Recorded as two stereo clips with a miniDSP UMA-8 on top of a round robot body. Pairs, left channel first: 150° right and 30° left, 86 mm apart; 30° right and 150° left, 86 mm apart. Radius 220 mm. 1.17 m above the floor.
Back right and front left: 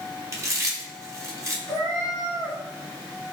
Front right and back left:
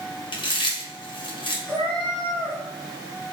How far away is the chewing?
About 0.8 m.